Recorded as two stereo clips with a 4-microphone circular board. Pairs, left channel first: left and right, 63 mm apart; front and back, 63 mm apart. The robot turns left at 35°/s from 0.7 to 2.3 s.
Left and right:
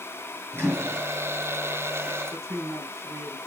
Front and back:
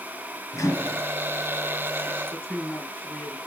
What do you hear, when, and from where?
0.5 s a microwave: 40° right, 6 m; by 1.0 s 50° right, 6 m
2.3 s a man speaking: 65° right, 5.5 m